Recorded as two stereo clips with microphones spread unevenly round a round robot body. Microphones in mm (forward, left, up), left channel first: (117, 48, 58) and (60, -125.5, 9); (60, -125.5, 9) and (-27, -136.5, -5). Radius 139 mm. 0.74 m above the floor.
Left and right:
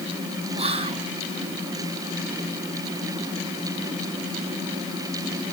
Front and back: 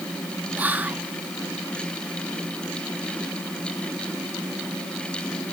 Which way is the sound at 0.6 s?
120° right.